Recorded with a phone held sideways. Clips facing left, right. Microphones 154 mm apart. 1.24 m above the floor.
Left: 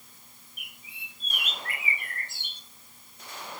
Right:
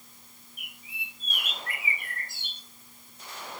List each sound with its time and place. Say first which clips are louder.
0.6 s a bird: right 4 dB; 75° left (ahead or behind), 3.5 m